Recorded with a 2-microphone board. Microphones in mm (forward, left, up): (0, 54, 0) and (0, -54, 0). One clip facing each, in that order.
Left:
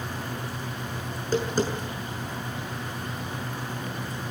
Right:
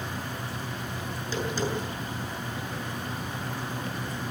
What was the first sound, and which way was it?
Tapping, 45° left (ahead or behind).